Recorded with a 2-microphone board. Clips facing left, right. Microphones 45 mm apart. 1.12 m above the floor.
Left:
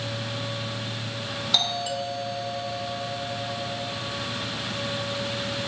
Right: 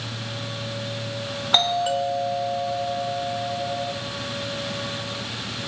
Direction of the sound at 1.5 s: 35° right (ahead or behind).